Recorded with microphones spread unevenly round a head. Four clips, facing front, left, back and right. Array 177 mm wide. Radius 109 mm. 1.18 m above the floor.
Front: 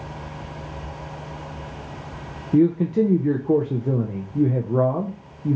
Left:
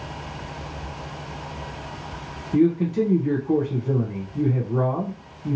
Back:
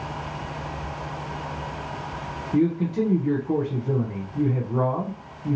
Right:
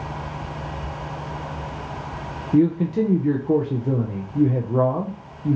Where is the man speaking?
15° right, 0.6 m.